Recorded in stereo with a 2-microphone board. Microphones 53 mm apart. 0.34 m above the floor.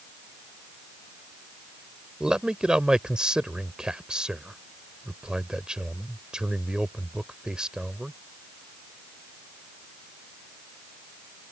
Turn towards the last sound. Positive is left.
turn(degrees=-15)  # may be behind; listen again after turning